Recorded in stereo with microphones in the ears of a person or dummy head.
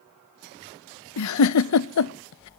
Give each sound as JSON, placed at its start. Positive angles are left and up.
{"t": 1.2, "sound": "a giggle", "side_deg": 80, "distance_m": 0.7}